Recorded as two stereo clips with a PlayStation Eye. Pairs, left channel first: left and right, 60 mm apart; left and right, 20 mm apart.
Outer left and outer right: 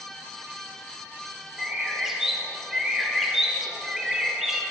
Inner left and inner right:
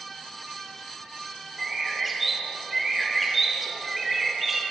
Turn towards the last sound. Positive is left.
turn(degrees=-5)  # may be behind; listen again after turning